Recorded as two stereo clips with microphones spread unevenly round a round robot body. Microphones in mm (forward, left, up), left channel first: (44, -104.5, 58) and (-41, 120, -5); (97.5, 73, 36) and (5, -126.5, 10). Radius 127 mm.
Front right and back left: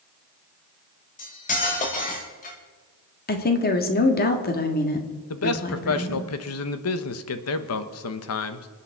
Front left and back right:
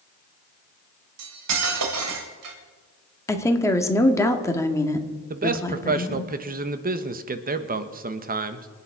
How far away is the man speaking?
About 1.2 m.